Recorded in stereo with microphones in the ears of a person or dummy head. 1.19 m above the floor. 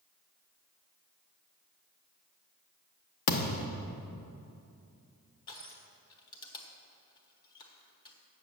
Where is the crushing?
25° left (ahead or behind), 1.3 m.